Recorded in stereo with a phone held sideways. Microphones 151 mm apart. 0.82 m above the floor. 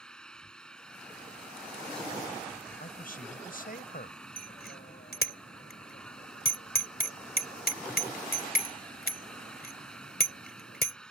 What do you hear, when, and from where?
0.0 s an engine running: 5° left (ahead or behind)
2.8 s a man speaking: 65° left (ahead or behind)
4.4 s a bicycle bell: 75° left (ahead or behind)